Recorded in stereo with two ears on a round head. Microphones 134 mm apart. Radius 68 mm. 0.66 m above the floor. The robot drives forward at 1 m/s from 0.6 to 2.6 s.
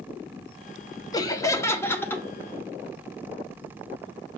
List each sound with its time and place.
1.1 s laughter: 25° left (ahead or behind), 1.0 m; by 2.2 s 15° left (ahead or behind), 1.8 m